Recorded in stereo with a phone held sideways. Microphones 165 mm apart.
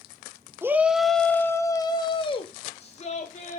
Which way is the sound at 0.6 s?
15° right (ahead or behind).